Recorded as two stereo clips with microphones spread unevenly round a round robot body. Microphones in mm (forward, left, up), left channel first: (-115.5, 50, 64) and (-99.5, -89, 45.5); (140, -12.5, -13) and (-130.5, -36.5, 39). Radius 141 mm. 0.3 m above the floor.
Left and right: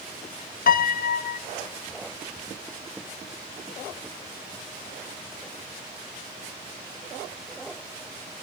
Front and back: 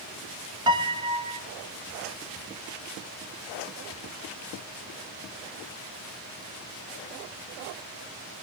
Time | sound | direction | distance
0.7 | a piano | 105° left | 0.6 m